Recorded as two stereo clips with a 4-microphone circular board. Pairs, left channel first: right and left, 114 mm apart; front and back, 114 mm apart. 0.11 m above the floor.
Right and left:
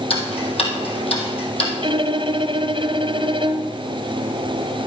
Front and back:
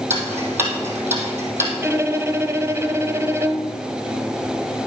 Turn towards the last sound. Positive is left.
turn(degrees=115)